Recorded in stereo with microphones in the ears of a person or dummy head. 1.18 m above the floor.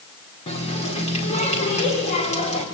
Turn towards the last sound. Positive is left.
turn(degrees=30)  # may be behind; listen again after turning